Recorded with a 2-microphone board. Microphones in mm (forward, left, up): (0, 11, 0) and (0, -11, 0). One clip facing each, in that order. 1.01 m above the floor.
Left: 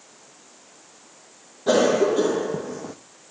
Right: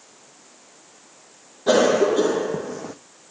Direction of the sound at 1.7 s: 15° right (ahead or behind).